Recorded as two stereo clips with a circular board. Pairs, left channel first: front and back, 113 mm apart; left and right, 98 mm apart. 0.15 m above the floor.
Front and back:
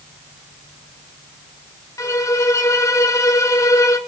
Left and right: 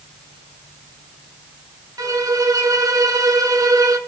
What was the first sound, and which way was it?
A violin, 50° right.